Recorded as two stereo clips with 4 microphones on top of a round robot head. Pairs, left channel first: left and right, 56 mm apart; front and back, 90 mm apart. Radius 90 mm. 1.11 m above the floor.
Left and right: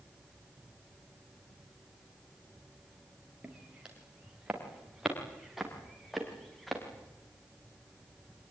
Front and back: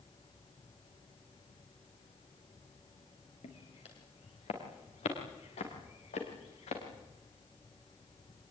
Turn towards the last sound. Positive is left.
turn(degrees=0)